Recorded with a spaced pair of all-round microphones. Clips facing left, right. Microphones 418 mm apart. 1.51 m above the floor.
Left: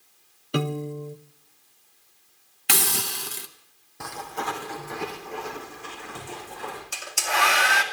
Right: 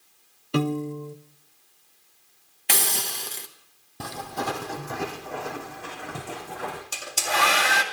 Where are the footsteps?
50° right (ahead or behind), 2.5 m; by 6.8 s 70° right (ahead or behind), 5 m.